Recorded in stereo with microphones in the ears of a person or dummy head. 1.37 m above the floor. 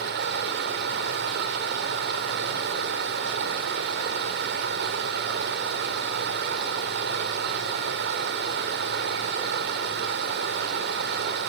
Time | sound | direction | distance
0.0 | running water | 45° right (ahead or behind) | 1.3 m